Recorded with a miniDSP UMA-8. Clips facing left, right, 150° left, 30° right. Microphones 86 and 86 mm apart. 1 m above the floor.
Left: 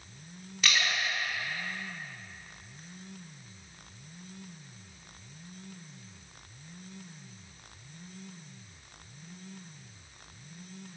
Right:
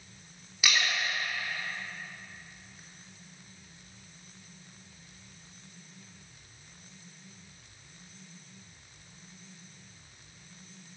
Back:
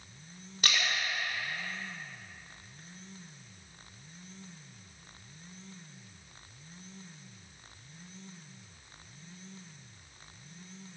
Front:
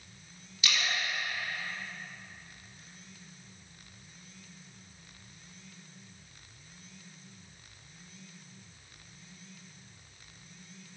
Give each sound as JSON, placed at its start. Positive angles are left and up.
{"t": 0.6, "sound": "a splash", "azimuth_deg": -175, "distance_m": 3.0}